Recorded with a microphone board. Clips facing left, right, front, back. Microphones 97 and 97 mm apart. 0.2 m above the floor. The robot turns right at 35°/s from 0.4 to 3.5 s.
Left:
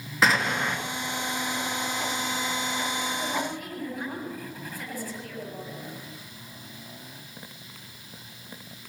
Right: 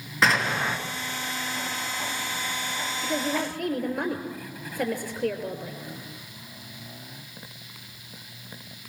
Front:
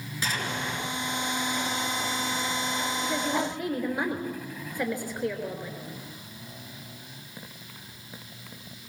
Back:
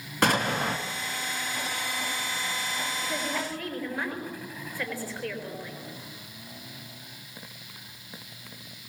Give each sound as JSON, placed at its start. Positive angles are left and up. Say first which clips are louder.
{"t": 0.2, "sound": "an explosion", "louder": "even, back 7 dB", "azimuth_deg": 180, "distance_m": 3.0}
{"t": 3.0, "sound": "a woman speaking", "louder": "right 2 dB, front 5 dB", "azimuth_deg": -85, "distance_m": 4.0}